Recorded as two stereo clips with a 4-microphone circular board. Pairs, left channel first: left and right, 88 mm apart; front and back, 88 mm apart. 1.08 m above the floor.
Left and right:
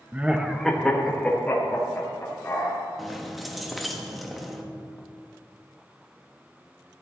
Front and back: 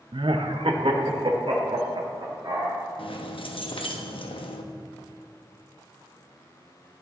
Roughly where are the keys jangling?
Ahead.